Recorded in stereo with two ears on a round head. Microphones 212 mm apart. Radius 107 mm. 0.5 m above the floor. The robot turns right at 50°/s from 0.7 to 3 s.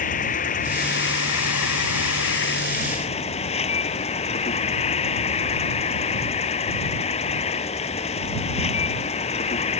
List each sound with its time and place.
0.0 s an insect: 35° left; by 9.8 s 150° left